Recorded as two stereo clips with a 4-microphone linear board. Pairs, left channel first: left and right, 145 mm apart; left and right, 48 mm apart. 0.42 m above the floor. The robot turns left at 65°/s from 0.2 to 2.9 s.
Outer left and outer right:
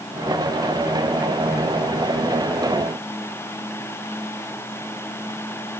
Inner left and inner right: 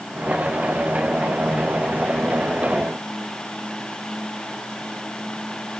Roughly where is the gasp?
I don't hear a gasp.